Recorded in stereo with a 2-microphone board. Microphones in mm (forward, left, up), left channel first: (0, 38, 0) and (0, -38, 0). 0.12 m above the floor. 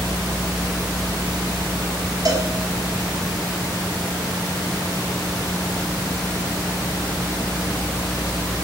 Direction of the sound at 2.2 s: 50° right (ahead or behind).